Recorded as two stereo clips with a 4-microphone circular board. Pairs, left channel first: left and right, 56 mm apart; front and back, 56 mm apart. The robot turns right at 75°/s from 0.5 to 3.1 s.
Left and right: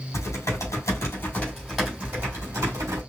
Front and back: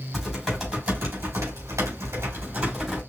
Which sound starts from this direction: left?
Typing on a keyboard, at 0.1 s.